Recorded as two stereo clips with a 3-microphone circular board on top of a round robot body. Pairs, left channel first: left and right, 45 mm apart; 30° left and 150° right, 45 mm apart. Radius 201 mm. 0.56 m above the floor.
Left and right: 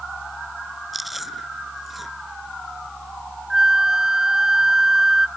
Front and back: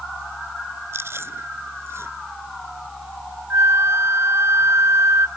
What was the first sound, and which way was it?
Chewing, straight behind.